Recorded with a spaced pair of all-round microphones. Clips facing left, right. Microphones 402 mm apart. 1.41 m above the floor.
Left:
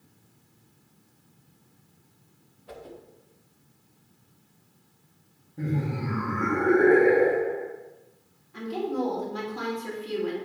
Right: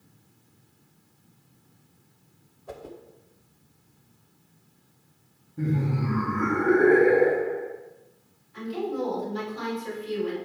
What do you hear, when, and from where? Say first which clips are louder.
2.7 s a whoosh: right 2 dB; 65° right (ahead or behind), 0.8 m
5.6 s laughter: right 2 dB; 15° right (ahead or behind), 1.6 m
8.5 s a woman speaking: even; 65° left (ahead or behind), 3 m